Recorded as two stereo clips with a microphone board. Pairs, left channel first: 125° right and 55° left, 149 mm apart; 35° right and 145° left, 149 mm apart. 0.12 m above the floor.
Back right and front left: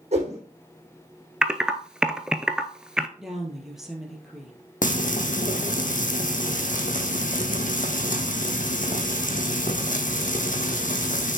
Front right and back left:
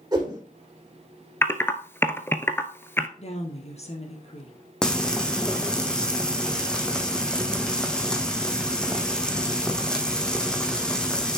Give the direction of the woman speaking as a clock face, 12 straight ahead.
1 o'clock.